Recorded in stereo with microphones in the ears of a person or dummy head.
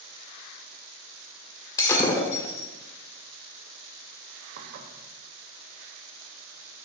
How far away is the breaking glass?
About 2.5 m.